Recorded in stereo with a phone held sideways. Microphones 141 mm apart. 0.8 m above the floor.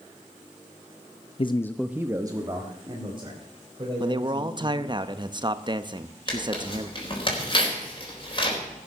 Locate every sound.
1.4 s a man speaking: 40° left (ahead or behind), 0.6 m; by 5.0 s 40° right (ahead or behind), 5 m
4.0 s a man speaking: 35° right (ahead or behind), 0.7 m
6.3 s tearing paper: 35° left (ahead or behind), 4 m